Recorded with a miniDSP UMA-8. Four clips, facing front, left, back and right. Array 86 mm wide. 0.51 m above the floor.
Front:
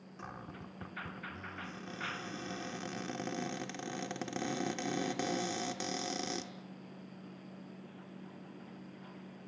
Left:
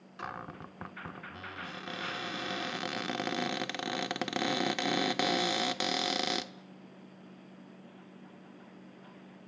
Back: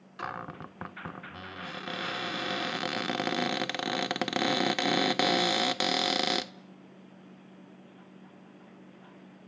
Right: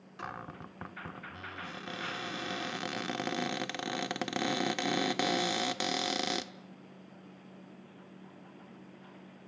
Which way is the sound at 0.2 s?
Straight behind.